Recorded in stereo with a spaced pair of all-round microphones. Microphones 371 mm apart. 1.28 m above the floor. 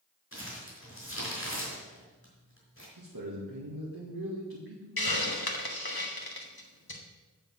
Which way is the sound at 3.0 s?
70° right (ahead or behind).